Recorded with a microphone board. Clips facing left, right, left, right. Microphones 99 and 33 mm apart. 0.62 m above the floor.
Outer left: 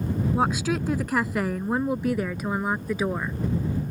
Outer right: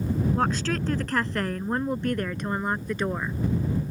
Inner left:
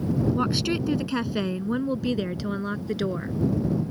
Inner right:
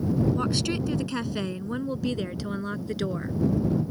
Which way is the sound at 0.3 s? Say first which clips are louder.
Outer left 2 dB, inner left 2 dB; 10° left (ahead or behind).